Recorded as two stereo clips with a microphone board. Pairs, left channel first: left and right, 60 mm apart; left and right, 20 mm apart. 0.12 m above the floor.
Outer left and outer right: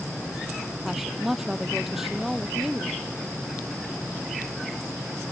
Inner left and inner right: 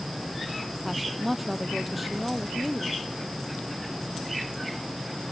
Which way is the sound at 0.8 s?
5° right (ahead or behind).